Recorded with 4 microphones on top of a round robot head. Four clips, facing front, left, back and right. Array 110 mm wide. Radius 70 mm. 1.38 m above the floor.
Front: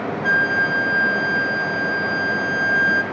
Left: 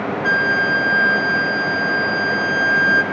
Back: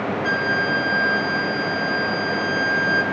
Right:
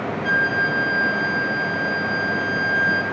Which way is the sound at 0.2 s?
85° left.